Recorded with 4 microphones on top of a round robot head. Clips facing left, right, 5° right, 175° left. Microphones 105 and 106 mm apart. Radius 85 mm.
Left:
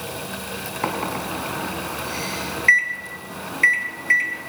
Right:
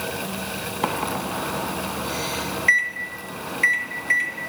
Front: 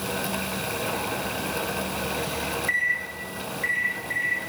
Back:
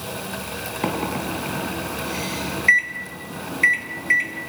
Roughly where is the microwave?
Behind.